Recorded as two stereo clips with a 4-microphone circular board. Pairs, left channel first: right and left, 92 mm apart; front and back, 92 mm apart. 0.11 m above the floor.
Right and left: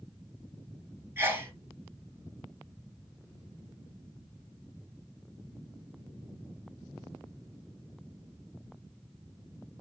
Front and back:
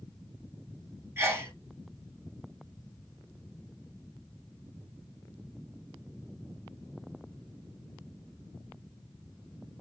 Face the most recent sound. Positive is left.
turn(degrees=140)